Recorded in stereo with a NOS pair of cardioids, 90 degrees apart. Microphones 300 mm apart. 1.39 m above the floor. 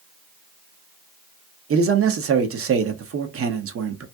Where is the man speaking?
45° right, 0.9 m.